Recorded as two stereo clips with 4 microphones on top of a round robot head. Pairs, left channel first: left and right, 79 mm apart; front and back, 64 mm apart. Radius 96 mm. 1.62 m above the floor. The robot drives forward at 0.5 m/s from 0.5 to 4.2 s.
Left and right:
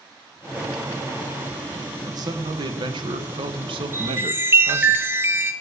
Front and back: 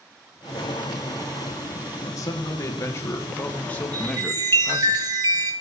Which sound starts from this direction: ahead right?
A man speaking, at 2.0 s.